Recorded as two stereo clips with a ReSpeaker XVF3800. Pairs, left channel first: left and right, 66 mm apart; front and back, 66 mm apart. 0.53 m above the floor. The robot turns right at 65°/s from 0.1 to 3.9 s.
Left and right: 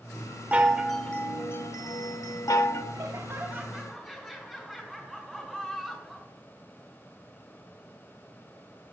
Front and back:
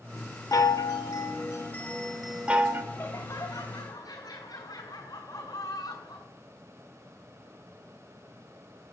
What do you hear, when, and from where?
0.5 s a chime: 20° right, 1.0 m; by 2.8 s 130° left, 1.0 m
2.9 s laughter: 60° right, 3 m; by 6.3 s straight ahead, 3 m